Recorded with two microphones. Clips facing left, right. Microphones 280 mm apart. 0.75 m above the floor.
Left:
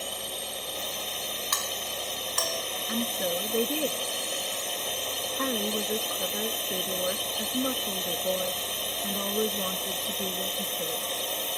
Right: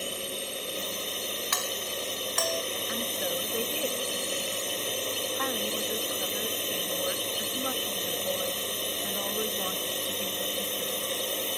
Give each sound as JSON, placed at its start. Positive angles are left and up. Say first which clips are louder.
{"t": 0.0, "sound": "a drone", "louder": "right 3 dB", "side_deg": -30}
{"t": 1.5, "sound": "a doorbell", "louder": "right 2 dB", "side_deg": 45}
{"t": 2.9, "sound": "a woman speaking", "louder": "left 6 dB", "side_deg": 45}